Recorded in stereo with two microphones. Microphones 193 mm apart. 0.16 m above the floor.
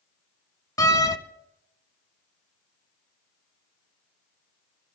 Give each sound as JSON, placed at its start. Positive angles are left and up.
{"t": 0.8, "sound": "a door slam", "side_deg": 20, "distance_m": 0.8}